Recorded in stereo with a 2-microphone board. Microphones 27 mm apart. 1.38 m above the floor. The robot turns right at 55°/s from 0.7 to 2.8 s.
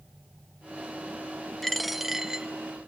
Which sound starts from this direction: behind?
A dropped coin, at 1.6 s.